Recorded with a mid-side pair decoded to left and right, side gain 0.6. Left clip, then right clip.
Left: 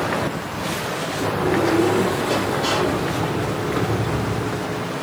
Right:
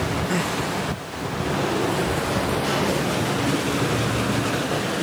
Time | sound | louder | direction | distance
1.1 | a sliding door | left 6 dB | 60° left | 2 m